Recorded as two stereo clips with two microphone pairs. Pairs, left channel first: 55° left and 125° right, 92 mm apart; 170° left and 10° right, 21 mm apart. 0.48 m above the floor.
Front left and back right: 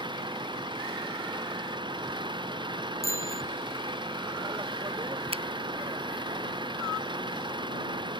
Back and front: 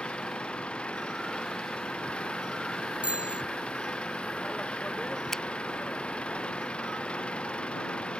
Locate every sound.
0.0 s an engine running: 160° right
3.0 s a bicycle bell: 5° right
5.3 s a finger snap: 125° right